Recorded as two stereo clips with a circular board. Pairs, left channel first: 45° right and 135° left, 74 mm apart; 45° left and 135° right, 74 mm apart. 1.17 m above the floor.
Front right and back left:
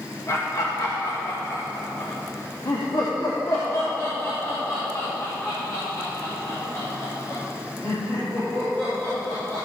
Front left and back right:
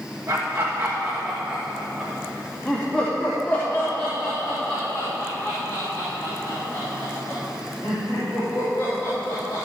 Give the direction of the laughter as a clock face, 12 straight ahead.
3 o'clock.